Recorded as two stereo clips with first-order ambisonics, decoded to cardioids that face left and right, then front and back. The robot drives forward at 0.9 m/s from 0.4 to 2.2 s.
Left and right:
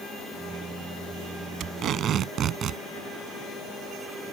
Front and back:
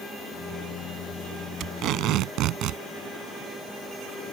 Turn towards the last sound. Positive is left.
turn(degrees=-145)